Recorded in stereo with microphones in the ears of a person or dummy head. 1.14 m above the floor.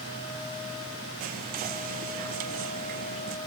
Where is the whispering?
45° right (ahead or behind), 0.5 m.